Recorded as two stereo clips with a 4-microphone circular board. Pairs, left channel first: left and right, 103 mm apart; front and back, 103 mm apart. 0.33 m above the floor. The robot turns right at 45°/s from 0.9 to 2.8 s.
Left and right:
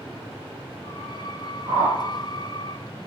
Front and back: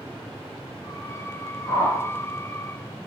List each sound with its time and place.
1.7 s a whoosh: 55° right, 1.0 m; by 2.0 s 40° right, 1.0 m